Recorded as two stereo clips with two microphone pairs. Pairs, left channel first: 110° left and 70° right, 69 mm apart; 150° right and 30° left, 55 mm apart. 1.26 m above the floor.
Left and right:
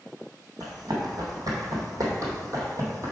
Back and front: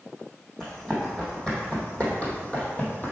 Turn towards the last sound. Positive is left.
turn(degrees=-100)